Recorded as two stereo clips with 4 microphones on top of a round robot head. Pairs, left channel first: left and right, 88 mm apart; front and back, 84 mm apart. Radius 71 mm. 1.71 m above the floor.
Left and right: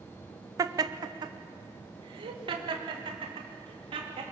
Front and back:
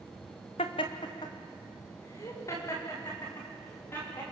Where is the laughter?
40° right, 1.1 m; by 4.2 s 70° right, 4 m.